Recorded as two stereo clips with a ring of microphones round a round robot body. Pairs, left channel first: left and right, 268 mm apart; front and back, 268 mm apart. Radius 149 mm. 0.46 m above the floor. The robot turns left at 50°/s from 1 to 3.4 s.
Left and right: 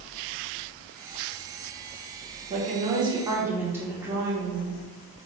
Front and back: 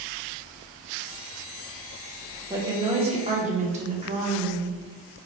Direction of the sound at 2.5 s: 115° right.